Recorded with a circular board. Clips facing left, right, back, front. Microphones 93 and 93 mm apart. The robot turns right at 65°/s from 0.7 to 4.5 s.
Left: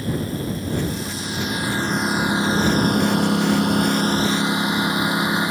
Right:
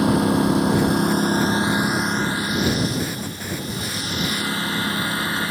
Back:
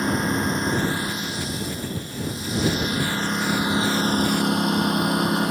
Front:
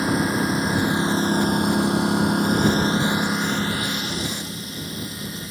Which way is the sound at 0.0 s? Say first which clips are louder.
Right 8 dB, front 1 dB; 85° right.